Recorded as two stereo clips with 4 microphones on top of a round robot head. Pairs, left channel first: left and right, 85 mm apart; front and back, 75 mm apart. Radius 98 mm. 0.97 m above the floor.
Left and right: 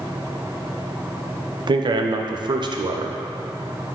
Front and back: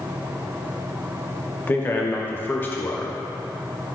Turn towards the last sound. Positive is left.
turn(degrees=-60)